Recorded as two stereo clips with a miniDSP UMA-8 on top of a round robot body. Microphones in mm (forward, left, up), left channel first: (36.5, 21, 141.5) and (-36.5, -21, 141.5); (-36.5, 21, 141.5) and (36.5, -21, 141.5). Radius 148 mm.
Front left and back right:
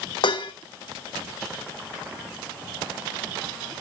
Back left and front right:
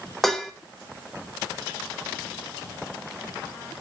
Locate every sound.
0.2 s dishes clattering: 60° left, 1.0 m